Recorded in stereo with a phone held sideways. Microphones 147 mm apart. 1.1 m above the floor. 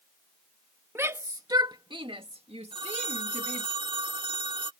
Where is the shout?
15° right (ahead or behind); by 3.7 s 60° right (ahead or behind).